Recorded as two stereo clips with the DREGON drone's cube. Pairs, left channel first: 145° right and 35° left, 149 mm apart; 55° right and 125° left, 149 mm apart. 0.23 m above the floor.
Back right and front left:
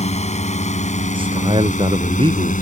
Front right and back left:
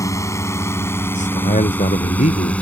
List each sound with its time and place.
0.0 s a drone: 120° right; by 2.6 s 135° right
1.1 s a man speaking: 20° right